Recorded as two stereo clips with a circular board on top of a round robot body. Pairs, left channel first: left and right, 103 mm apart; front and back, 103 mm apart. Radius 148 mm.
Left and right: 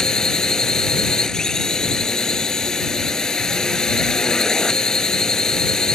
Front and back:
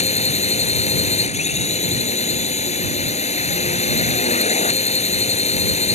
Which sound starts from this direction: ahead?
A drone, at 0.0 s.